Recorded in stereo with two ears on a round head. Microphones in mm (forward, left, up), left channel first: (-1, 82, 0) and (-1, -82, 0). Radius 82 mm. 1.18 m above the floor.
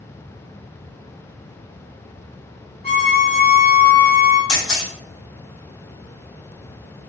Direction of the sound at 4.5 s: 80° left.